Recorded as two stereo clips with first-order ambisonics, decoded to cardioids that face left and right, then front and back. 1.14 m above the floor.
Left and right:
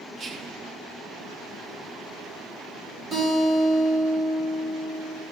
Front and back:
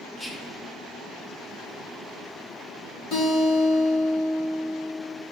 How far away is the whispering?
About 0.7 m.